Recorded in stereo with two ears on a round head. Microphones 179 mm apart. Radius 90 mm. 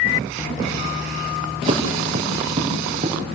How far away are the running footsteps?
About 3.5 m.